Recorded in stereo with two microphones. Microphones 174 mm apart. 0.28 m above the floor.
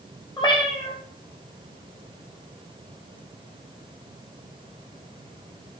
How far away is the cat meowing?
About 1.9 m.